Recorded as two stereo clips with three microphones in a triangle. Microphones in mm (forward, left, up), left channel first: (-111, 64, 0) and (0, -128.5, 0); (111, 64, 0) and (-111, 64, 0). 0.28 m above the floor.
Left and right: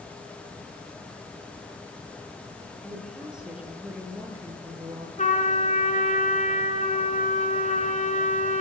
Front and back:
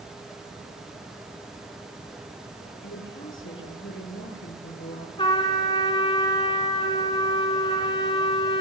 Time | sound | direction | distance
2.8 | a woman speaking | 30° left | 6.5 m
5.2 | a trumpet | 65° left | 3 m